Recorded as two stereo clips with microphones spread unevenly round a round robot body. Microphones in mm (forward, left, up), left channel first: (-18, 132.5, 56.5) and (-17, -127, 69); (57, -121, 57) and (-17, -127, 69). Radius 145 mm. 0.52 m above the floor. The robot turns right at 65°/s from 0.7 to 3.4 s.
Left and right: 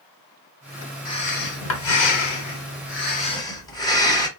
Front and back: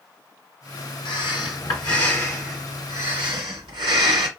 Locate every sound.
1.1 s breathing: 15° left, 1.1 m; by 4.3 s 165° left, 1.1 m